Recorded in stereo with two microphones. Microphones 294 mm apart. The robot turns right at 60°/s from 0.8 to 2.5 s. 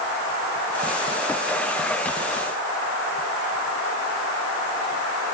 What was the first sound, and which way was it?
Only background noise.